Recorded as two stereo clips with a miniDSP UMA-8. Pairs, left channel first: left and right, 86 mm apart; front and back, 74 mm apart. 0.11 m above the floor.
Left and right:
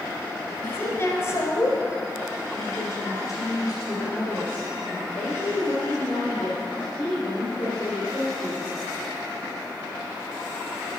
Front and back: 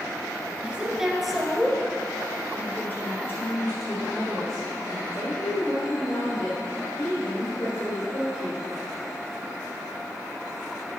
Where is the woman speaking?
125° left, 1.4 m; by 8.6 s 35° left, 6 m.